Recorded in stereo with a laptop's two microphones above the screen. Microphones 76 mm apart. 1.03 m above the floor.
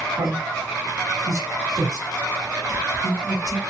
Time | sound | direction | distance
0.1 | a man speaking | 50° right (ahead or behind) | 1.5 m